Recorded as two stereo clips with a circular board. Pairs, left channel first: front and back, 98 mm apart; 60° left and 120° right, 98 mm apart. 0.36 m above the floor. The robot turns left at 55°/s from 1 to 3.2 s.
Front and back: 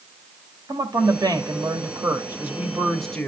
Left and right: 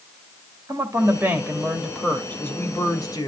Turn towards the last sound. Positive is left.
turn(degrees=75)